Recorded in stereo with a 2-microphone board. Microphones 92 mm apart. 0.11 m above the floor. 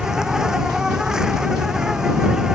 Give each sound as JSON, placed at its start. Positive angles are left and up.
{"t": 0.0, "sound": "an insect", "side_deg": -5}